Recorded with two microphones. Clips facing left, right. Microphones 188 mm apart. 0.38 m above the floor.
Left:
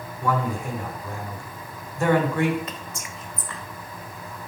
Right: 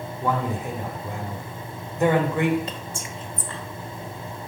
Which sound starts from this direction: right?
Whispering, at 2.7 s.